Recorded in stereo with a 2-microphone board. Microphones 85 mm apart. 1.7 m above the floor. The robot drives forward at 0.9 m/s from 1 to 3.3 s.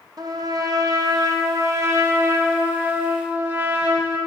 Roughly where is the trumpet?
Right.